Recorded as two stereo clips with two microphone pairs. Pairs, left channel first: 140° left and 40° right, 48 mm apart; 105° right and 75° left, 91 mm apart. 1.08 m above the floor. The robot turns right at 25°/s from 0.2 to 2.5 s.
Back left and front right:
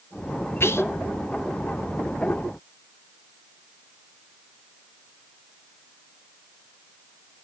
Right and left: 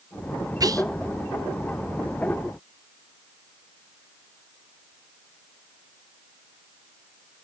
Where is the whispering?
110° left, 0.6 m; by 0.8 s 120° left, 0.6 m.